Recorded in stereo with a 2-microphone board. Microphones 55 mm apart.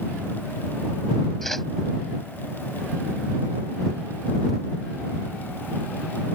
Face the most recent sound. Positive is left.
turn(degrees=5)  # may be behind; listen again after turning